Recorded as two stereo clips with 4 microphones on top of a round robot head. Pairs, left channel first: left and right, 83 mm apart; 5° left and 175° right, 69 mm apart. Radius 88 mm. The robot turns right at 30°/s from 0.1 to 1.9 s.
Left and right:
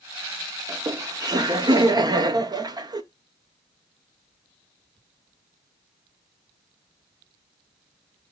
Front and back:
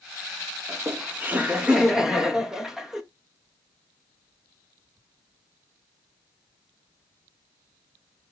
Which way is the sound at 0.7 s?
130° right.